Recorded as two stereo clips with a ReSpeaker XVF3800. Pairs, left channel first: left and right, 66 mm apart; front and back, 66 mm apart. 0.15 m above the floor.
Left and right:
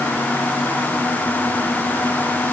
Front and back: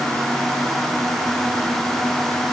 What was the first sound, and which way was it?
Only background noise.